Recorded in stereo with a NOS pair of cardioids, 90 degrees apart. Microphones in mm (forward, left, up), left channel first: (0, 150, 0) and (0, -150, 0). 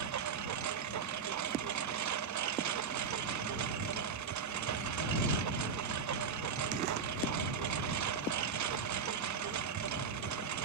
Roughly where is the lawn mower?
Right.